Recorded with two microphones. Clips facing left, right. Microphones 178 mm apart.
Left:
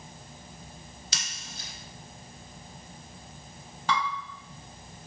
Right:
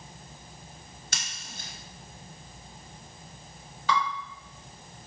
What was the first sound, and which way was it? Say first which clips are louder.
Scissors: right 3 dB; 55° right (ahead or behind).